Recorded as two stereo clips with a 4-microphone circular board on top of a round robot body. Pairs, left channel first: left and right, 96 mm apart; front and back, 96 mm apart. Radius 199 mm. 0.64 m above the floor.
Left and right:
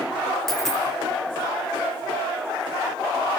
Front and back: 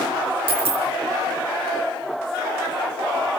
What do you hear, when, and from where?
0.5 s a dropped coin: 175° left, 3 m